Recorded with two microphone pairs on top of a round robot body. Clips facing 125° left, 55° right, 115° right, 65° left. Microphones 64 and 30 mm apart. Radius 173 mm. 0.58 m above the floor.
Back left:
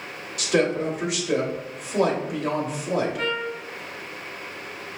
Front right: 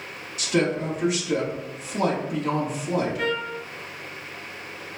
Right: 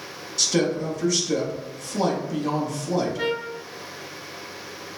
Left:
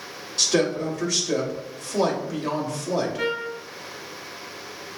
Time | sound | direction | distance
0.4 | a woman speaking | 105° left | 2 m
3.2 | a trumpet | 90° left | 0.7 m